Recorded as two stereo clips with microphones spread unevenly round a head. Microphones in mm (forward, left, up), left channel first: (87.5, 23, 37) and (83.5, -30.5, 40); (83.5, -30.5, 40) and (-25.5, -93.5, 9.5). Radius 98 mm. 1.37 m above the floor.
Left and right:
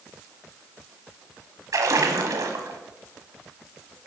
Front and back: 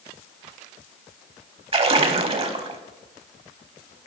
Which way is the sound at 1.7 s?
125° right.